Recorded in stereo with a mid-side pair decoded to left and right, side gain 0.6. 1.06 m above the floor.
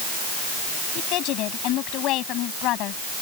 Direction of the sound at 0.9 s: 65° left.